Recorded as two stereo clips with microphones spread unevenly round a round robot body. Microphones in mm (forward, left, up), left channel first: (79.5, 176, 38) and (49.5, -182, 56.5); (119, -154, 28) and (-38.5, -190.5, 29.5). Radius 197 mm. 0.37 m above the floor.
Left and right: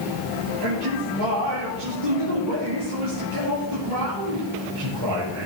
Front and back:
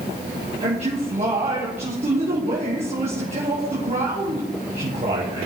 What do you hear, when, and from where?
0.6 s a man speaking: 125° right, 7.5 m